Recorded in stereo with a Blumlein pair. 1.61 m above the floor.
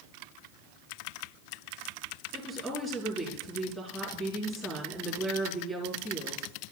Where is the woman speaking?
10° right, 4.5 m.